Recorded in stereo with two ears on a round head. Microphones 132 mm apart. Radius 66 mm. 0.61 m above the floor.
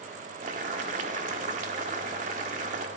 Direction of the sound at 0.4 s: 50° right (ahead or behind).